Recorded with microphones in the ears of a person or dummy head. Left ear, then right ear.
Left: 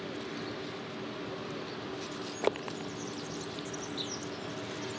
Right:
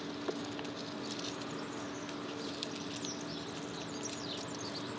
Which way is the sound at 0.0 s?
5° left (ahead or behind).